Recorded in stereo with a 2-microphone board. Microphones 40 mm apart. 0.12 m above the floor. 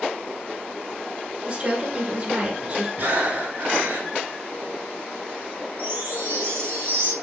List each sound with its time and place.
1.4 s a woman speaking: 35° right (ahead or behind), 1.6 m
3.0 s breathing: 55° right (ahead or behind), 1.8 m
5.8 s a chime: 75° right (ahead or behind), 2.5 m